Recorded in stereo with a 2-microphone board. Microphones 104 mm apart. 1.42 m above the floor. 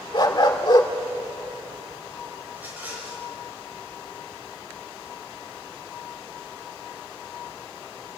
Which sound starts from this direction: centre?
A rattle, at 2.5 s.